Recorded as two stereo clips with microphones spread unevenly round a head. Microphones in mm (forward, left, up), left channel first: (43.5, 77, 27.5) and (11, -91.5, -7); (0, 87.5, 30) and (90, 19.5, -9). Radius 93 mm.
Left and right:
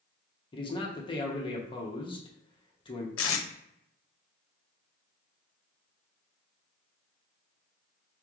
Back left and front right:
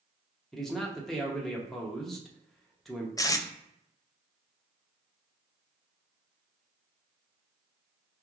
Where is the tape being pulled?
75° left, 0.7 m.